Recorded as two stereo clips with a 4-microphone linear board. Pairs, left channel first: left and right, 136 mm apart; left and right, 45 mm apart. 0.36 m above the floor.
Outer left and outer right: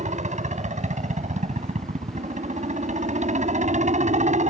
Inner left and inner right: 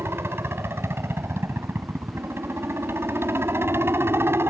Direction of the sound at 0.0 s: 60° right (ahead or behind).